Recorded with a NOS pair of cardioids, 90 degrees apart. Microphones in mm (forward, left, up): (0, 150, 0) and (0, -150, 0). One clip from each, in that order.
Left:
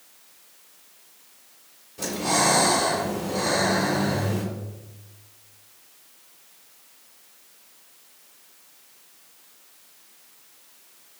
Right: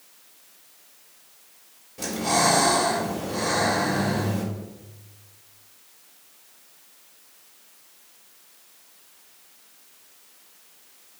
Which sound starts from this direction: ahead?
Breathing, at 2.0 s.